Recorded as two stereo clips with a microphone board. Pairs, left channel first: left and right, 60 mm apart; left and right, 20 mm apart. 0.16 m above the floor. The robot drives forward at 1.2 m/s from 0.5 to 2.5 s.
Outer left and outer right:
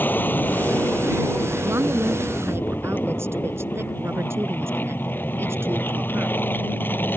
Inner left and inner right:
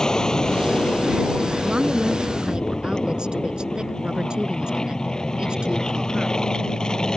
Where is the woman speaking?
50° right (ahead or behind).